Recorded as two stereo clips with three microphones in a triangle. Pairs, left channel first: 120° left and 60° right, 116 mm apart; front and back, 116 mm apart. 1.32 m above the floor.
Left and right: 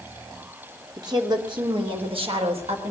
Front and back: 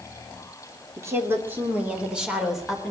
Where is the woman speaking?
115° right, 3 m; by 2.9 s 90° right, 4.5 m.